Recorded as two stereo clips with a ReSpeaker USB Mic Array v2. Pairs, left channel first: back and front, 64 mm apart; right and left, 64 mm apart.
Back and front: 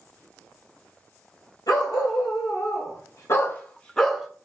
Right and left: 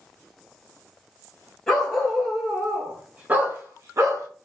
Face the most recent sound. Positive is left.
turn(degrees=85)